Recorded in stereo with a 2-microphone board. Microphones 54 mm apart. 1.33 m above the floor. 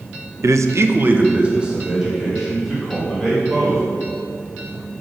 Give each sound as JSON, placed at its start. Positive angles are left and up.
{"t": 0.4, "sound": "a man speaking", "side_deg": -65, "distance_m": 0.6}